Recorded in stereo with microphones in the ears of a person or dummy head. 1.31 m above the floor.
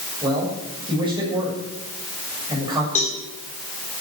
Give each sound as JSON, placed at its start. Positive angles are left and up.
{"t": 0.2, "sound": "a man speaking", "side_deg": -20, "distance_m": 8.0}
{"t": 3.0, "sound": "a cowbell", "side_deg": 45, "distance_m": 3.5}